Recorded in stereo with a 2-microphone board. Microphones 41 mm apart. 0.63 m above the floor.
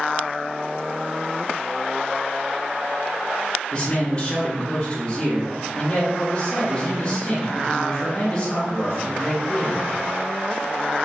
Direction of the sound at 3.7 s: 20° left (ahead or behind).